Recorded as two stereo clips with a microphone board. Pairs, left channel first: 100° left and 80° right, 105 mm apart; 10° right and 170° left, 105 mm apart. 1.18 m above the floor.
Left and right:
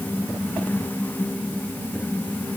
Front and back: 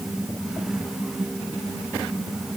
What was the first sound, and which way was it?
Only background noise.